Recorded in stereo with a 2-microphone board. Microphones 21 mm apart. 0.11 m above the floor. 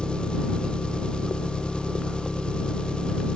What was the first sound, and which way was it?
An engine running, 50° left (ahead or behind).